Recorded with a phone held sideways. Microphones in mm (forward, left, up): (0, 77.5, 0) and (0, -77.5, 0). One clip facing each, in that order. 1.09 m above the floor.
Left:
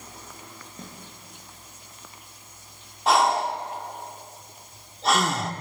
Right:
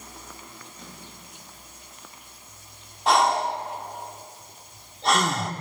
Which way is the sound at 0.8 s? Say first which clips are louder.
Left 4 dB; 50° left (ahead or behind).